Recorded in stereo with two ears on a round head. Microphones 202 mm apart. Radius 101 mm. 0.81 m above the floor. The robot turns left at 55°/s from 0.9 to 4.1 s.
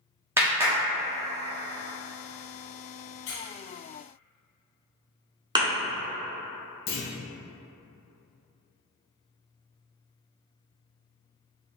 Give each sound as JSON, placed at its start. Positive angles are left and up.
{"t": 0.4, "sound": "a clap", "side_deg": -10, "distance_m": 1.0}
{"t": 3.3, "sound": "a squeak", "side_deg": 65, "distance_m": 1.7}
{"t": 5.5, "sound": "a thud", "side_deg": -20, "distance_m": 1.1}
{"t": 6.9, "sound": "a clunk", "side_deg": 25, "distance_m": 1.0}